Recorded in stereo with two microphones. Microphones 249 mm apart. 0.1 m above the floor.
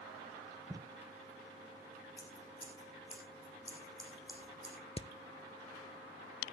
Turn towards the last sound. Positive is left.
turn(degrees=25)  # may be behind; listen again after turning